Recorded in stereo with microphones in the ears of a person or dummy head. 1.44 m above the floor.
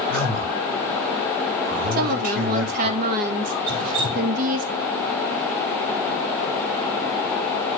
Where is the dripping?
30° right (ahead or behind), 7.5 m.